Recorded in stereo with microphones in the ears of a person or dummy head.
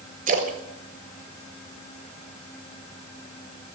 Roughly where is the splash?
Right.